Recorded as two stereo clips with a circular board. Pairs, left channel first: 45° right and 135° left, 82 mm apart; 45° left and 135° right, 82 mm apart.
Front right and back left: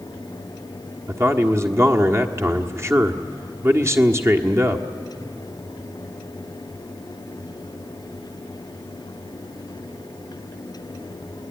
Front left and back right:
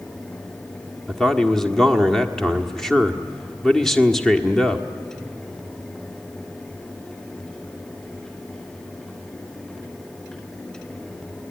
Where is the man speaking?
125° left, 1.3 m.